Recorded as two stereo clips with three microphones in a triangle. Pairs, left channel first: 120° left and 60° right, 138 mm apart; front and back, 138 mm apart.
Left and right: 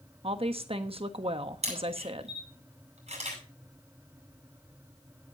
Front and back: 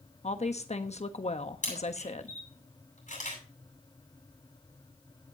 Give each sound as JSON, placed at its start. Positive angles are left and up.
{"t": 0.2, "sound": "a woman speaking", "azimuth_deg": -25, "distance_m": 1.2}
{"t": 1.6, "sound": "a camera shutter", "azimuth_deg": -20, "distance_m": 8.0}